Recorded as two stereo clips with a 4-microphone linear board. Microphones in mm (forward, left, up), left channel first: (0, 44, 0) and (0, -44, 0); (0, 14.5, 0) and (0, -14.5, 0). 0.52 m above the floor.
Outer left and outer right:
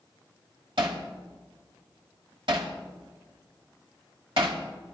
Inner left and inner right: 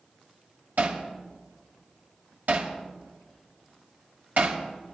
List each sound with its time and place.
0.8 s hammering: 75° right (ahead or behind), 1.5 m